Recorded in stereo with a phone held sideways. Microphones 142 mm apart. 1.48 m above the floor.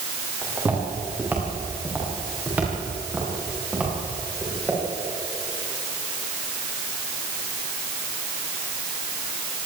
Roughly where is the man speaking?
I don't hear a man speaking.